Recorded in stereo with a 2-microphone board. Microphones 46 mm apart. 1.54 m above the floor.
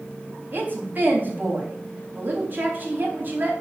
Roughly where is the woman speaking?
Right.